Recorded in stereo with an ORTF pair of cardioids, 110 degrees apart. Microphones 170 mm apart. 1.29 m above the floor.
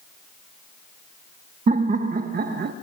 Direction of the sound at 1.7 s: 45° right.